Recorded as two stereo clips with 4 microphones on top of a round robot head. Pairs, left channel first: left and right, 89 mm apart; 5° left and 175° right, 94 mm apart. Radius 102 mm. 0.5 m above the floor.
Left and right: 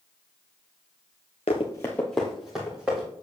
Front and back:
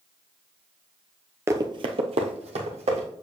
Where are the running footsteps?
125° left, 0.6 m; by 3.1 s 170° right, 2 m.